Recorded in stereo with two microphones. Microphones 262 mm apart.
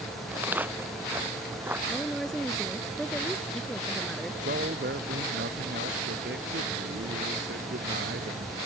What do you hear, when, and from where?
0.3 s footsteps: 5° right (ahead or behind)
1.9 s a woman speaking: centre (ahead or behind)
4.4 s a man speaking: 45° right (ahead or behind)